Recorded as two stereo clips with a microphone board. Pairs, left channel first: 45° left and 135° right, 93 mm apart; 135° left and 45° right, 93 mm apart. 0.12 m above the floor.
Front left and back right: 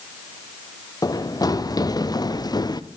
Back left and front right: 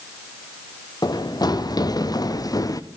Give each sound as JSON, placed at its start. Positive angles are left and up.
{"t": 1.0, "sound": "running footsteps", "azimuth_deg": 95, "distance_m": 4.0}